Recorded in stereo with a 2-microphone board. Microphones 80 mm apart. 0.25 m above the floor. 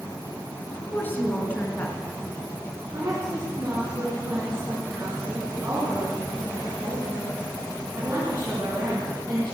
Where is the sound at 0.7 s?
25° left (ahead or behind), 3.5 m.